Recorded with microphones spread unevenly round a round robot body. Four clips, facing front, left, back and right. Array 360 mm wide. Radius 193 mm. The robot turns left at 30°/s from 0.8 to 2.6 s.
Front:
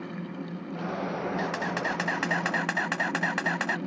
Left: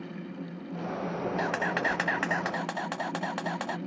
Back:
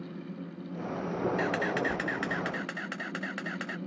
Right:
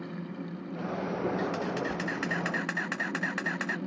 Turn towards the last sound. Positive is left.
turn(degrees=45)